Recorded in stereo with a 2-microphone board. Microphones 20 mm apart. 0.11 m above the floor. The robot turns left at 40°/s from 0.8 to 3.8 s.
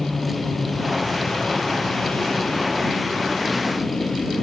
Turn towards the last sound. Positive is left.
turn(degrees=40)